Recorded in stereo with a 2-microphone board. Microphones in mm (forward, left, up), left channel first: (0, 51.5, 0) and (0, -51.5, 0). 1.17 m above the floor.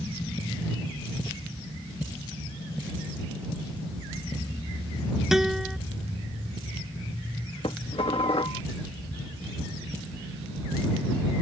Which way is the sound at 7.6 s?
65° left (ahead or behind).